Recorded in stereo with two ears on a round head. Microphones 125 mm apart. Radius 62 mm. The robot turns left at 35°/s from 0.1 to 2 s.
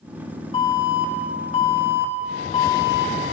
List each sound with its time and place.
0.5 s an alarm: 120° left, 1.9 m; by 3.1 s 70° left, 1.9 m